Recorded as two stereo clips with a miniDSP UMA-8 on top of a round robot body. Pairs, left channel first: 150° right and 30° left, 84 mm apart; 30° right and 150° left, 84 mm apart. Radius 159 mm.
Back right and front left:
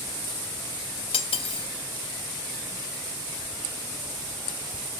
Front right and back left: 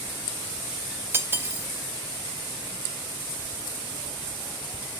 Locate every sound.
1.1 s cutlery clinking: 145° right, 0.9 m